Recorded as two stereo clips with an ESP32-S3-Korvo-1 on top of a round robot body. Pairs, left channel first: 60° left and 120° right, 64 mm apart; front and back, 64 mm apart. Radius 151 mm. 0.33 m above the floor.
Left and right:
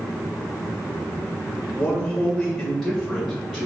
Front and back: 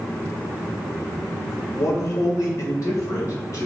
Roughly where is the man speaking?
Ahead.